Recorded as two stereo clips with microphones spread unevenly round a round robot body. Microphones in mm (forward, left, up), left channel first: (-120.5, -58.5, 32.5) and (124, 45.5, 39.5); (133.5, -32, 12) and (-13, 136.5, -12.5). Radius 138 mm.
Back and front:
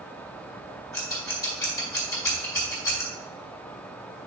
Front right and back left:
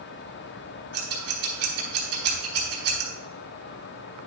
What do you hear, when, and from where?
0.9 s scissors: 125° left, 3.5 m